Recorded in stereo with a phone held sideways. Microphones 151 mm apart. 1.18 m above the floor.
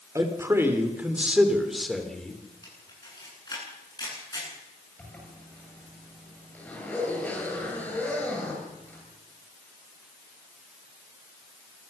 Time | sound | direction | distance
0.1 | a man speaking | 20° right (ahead or behind) | 3 m
2.6 | a camera shutter | 25° left (ahead or behind) | 9.5 m
5.0 | a zipper | 10° left (ahead or behind) | 8 m